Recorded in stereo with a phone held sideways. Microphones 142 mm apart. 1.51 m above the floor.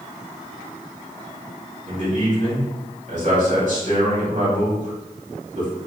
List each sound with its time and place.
1.9 s a man speaking: 55° right (ahead or behind), 1.8 m